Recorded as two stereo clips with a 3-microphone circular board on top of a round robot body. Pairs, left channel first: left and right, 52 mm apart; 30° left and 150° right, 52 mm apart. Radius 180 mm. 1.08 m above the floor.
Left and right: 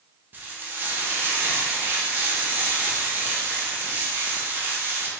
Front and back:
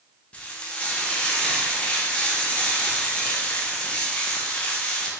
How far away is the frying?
About 0.8 m.